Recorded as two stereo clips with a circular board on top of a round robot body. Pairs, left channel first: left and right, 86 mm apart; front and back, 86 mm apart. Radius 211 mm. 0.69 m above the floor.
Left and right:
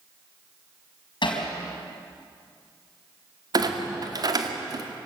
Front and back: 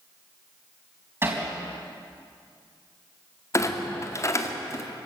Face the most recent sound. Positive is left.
turn(degrees=-55)